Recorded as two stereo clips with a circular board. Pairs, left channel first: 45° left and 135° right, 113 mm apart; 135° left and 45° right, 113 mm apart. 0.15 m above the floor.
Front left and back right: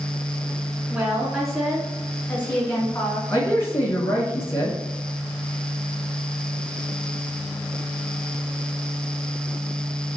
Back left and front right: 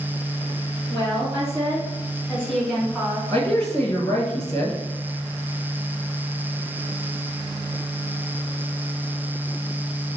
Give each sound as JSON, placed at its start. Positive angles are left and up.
{"t": 0.9, "sound": "a woman speaking", "azimuth_deg": 155, "distance_m": 1.9}
{"t": 3.3, "sound": "a man speaking", "azimuth_deg": 100, "distance_m": 1.7}